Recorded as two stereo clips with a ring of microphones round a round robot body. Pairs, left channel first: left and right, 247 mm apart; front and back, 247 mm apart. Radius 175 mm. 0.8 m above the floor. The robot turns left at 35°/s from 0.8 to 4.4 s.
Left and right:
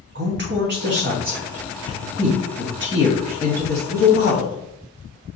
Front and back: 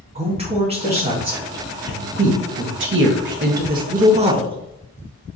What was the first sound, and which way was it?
A woman speaking, 120° right.